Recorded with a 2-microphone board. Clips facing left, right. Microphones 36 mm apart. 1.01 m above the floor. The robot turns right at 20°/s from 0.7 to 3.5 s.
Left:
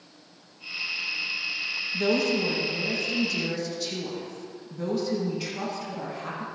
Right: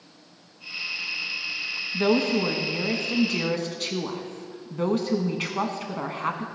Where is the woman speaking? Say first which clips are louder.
Right 3 dB; 145° right, 1.4 m; by 6.5 s 115° right, 1.4 m.